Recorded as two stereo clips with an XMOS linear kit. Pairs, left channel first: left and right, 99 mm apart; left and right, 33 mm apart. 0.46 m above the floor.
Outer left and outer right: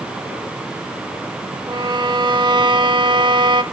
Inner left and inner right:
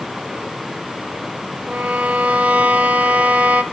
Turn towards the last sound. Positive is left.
turn(degrees=-50)  # may be behind; listen again after turning